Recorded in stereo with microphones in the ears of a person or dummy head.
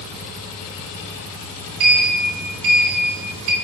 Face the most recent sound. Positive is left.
turn(degrees=-45)  # may be behind; listen again after turning